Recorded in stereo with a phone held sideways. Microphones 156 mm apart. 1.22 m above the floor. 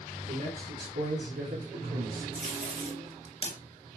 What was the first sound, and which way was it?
A man speaking, 70° right (ahead or behind).